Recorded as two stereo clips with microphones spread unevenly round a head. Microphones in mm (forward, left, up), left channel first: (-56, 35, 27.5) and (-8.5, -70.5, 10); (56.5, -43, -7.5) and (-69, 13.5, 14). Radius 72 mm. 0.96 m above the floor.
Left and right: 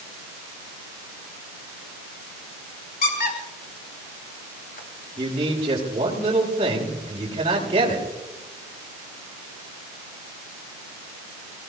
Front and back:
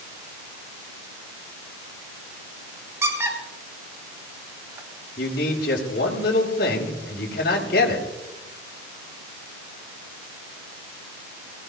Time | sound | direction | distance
3.0 | a squeak | 80° left | 3.5 m
5.2 | a man speaking | 10° right | 4.5 m